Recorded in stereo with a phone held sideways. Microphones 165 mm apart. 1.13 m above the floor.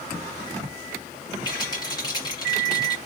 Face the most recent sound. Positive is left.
turn(degrees=25)  # may be behind; listen again after turning